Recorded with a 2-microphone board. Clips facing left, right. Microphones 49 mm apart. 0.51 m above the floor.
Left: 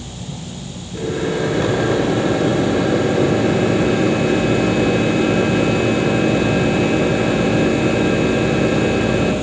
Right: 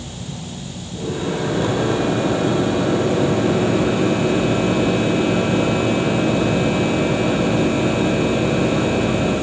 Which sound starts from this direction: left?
A microwave, at 0.9 s.